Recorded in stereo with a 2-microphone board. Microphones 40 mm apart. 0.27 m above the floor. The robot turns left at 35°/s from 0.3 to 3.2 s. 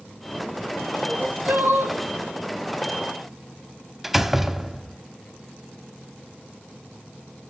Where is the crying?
40° right, 3 m; by 2.0 s 75° right, 3 m.